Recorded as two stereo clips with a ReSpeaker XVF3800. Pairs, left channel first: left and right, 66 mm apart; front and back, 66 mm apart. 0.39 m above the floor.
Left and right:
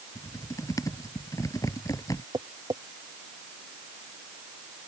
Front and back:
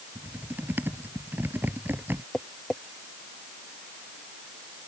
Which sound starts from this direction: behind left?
Typing on a keyboard, at 0.1 s.